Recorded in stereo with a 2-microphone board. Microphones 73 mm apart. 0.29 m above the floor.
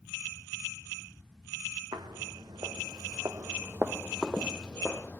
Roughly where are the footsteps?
Right.